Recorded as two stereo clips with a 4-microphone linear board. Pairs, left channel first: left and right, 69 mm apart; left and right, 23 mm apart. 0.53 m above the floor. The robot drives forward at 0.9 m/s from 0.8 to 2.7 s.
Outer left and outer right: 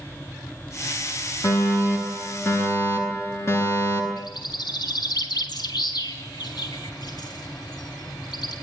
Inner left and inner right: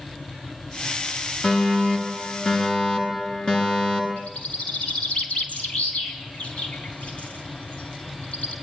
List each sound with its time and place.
1.4 s a fire alarm: 45° left (ahead or behind), 9.5 m; by 4.1 s 40° left (ahead or behind), 10.5 m
4.2 s a bird: 80° left, 4.5 m